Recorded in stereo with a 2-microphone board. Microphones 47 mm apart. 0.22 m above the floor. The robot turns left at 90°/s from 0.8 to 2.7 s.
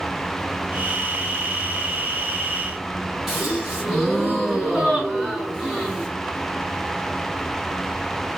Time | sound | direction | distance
3.3 | a gasp | 10° right (ahead or behind) | 2.0 m